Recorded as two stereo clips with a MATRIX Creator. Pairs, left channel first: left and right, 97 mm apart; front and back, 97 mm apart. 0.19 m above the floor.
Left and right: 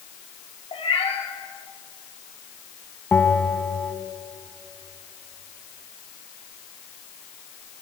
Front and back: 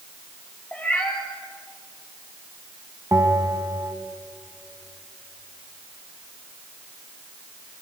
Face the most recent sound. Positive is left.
turn(degrees=155)